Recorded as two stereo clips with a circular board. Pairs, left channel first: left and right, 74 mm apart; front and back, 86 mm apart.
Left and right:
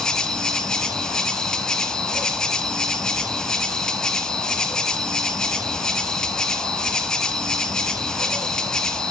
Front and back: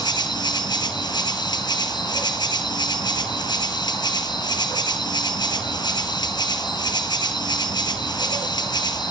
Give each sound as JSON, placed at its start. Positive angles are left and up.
{"t": 0.0, "sound": "an insect", "azimuth_deg": 10, "distance_m": 1.4}